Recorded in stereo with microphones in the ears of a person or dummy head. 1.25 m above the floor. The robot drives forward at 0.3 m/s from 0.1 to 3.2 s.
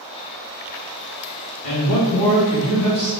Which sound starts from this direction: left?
A man speaking, at 1.6 s.